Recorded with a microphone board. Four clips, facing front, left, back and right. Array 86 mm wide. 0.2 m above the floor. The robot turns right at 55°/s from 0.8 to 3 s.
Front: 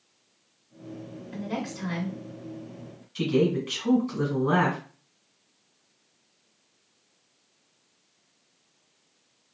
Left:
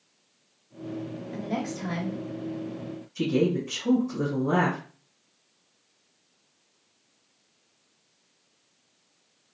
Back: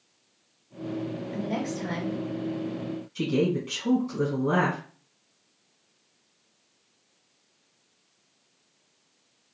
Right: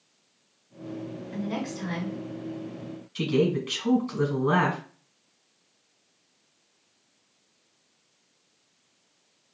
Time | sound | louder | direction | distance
1.3 | a woman speaking | even, back 1 dB | 50° right | 1.8 m
3.1 | a woman speaking | even, front 2 dB | 60° right | 1.9 m